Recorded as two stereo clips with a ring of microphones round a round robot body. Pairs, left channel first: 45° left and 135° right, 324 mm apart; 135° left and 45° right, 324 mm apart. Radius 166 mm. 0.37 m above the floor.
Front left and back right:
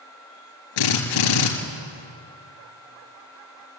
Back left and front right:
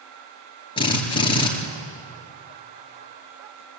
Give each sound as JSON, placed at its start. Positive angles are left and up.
{"t": 0.8, "sound": "a drill", "azimuth_deg": 60, "distance_m": 3.5}